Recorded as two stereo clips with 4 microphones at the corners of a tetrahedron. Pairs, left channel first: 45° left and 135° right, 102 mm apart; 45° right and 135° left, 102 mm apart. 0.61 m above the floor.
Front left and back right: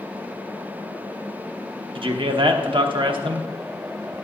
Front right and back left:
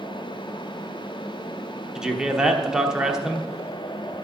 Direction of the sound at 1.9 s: 140° right.